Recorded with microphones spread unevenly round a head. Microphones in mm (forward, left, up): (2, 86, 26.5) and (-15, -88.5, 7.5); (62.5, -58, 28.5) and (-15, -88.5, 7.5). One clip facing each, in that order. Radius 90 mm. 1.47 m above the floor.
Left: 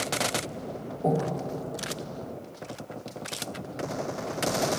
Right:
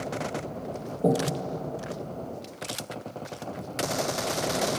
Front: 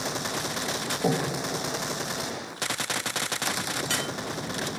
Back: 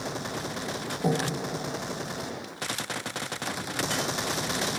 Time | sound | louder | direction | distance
1.0 | breathing | right 2 dB, front 1 dB | 55° right | 1.1 m